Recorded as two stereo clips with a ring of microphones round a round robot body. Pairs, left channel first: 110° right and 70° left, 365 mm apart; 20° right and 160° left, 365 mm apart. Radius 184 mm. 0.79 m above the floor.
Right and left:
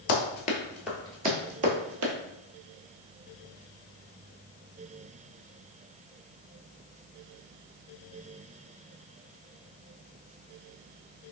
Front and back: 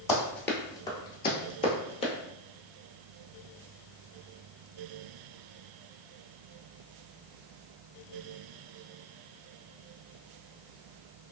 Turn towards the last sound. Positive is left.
turn(degrees=50)